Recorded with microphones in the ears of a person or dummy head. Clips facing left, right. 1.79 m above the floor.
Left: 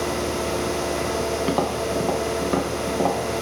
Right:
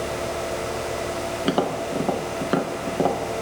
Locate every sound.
1.4 s tapping: 10° right (ahead or behind), 0.8 m